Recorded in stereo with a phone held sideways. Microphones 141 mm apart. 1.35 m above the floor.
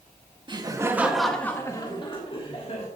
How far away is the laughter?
About 1.5 m.